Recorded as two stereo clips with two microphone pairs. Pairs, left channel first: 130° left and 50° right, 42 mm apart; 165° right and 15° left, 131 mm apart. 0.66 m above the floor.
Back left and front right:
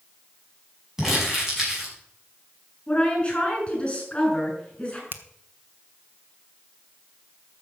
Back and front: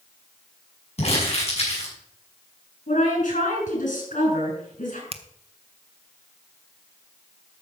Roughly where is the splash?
No splash in this recording.